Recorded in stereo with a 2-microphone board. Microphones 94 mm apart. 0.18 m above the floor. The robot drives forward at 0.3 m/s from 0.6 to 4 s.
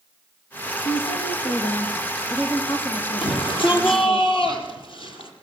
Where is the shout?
60° left (ahead or behind), 4.5 m; by 5.3 s 65° left (ahead or behind), 4.5 m.